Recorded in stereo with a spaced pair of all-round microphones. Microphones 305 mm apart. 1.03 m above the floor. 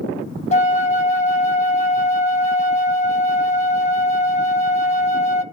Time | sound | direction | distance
0.5 | a flute | 20° left (ahead or behind) | 0.9 m